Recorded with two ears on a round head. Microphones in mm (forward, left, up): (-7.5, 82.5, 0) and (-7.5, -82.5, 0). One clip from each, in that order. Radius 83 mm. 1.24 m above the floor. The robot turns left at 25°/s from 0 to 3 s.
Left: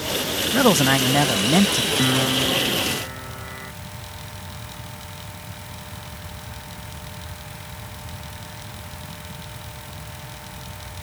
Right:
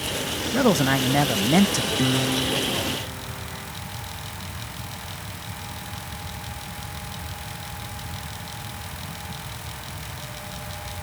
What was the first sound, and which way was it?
A man speaking, 25° left.